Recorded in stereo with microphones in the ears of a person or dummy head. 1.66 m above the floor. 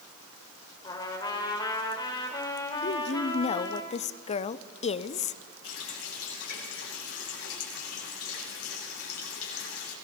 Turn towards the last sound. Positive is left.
turn(degrees=80)